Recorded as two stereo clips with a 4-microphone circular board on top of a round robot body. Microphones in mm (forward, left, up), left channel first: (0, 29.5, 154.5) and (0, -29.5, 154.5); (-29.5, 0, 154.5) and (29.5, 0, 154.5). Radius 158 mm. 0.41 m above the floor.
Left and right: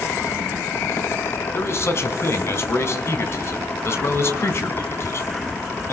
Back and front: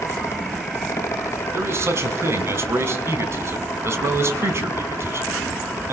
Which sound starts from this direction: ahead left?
A man speaking, at 1.5 s.